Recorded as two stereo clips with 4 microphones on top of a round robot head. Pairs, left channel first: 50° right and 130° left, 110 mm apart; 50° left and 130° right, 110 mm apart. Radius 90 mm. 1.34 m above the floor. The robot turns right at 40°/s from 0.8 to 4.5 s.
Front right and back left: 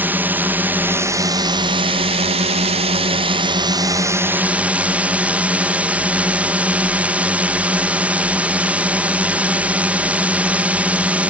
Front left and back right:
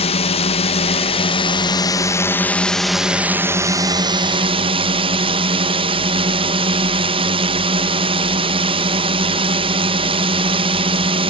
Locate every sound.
0.0 s a drone: 60° left; by 11.3 s 155° right